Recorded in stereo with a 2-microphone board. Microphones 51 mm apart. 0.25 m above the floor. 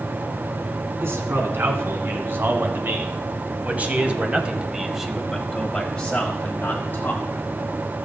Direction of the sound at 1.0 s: 55° right (ahead or behind).